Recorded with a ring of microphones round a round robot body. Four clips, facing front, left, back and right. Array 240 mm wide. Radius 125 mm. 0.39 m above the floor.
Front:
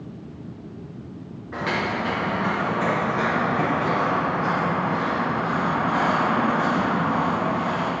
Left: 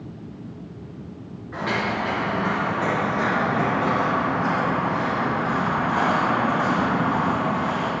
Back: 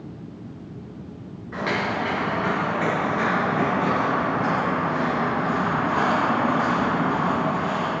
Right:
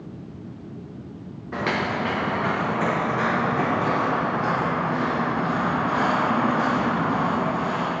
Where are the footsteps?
95° right, 3 m; by 7.9 s 120° right, 8.5 m.